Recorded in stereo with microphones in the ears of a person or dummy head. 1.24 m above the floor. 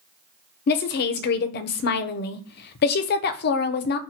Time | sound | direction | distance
0.7 | a woman speaking | 60° left (ahead or behind) | 0.5 m